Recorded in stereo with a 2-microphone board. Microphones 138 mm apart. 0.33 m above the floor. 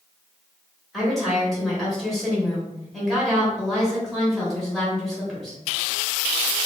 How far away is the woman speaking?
About 1.3 m.